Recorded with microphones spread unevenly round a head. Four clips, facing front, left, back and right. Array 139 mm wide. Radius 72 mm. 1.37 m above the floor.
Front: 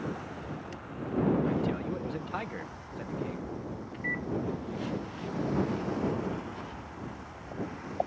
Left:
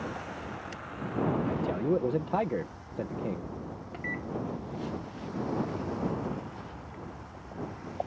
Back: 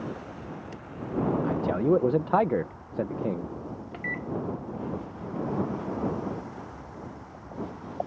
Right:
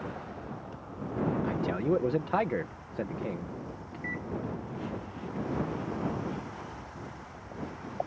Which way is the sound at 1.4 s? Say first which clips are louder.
Even, back 6 dB; straight behind.